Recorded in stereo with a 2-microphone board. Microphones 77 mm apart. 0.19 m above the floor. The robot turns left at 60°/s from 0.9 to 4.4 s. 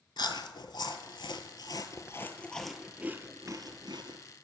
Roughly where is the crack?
I don't hear a crack.